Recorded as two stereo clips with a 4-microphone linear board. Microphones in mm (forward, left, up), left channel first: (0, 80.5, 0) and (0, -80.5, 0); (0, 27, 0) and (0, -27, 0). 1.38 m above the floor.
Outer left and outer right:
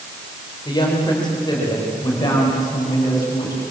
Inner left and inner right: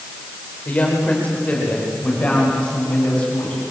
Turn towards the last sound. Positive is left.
turn(degrees=25)  # may be behind; listen again after turning